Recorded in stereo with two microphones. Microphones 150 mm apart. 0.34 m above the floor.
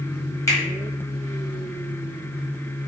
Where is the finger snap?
20° left (ahead or behind), 1.3 m.